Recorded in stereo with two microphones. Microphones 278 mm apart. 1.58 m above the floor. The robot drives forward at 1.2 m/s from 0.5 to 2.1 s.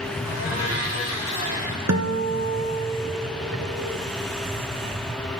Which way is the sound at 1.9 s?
70° right (ahead or behind).